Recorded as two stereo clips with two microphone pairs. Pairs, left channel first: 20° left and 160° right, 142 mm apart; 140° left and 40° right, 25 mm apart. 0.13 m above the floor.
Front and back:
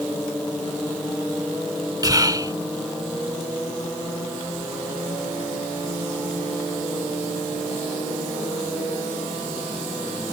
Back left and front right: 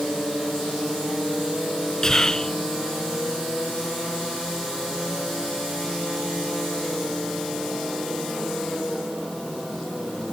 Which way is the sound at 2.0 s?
175° left.